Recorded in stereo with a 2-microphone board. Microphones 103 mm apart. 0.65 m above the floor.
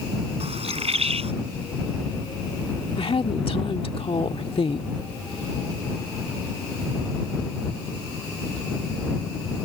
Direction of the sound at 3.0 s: 60° left (ahead or behind).